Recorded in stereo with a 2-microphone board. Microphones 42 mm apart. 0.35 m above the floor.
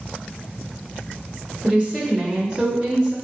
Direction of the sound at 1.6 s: 20° right (ahead or behind).